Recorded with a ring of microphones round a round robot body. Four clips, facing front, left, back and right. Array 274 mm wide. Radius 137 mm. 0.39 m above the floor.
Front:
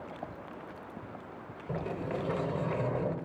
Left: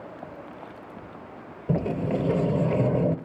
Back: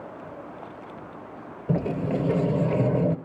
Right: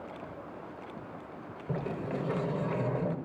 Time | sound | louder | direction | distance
1.7 | a sliding door | left 9 dB, back 9 dB | 135° left | 0.7 m